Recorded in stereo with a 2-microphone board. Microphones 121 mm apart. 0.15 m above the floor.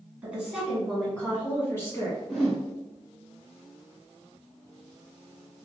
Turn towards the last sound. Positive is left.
turn(degrees=0)  # may be behind; listen again after turning